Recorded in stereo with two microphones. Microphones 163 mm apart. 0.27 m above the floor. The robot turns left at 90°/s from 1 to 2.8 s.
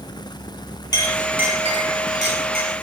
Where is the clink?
25° left (ahead or behind), 3 m; by 2.7 s 50° right (ahead or behind), 3 m.